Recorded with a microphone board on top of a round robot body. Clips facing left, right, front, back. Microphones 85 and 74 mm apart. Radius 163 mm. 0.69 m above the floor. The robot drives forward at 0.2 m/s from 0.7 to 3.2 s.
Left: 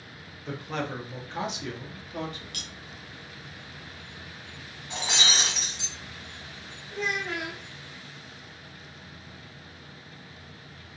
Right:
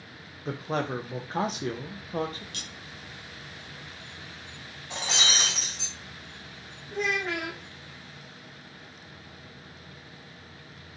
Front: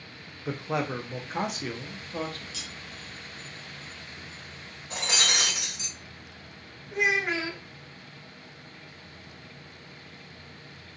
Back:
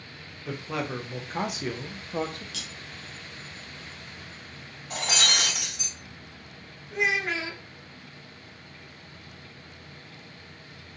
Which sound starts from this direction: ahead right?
A man speaking, at 0.5 s.